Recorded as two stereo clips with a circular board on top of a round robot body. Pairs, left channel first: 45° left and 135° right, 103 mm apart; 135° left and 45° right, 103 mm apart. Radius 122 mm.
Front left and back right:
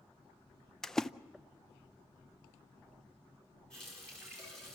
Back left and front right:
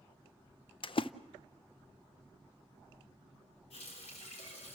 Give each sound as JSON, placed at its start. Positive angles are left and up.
{"t": 0.8, "sound": "a splash", "azimuth_deg": 130, "distance_m": 0.6}
{"t": 3.7, "sound": "a running tap", "azimuth_deg": 130, "distance_m": 5.0}